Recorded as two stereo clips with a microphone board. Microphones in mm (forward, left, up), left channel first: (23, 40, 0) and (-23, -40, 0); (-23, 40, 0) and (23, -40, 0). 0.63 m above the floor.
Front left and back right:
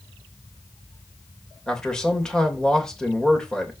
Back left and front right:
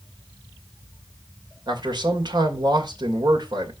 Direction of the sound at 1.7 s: 20° right.